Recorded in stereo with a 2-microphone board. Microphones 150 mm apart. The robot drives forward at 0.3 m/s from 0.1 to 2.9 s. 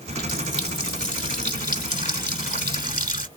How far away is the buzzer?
I don't hear a buzzer.